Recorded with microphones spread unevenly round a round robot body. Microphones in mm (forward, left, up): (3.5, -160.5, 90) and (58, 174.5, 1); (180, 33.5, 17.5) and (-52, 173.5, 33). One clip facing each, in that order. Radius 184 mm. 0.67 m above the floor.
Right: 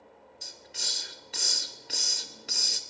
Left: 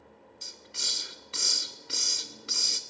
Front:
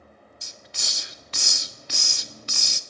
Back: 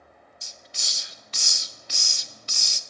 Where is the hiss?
5° left, 0.6 m.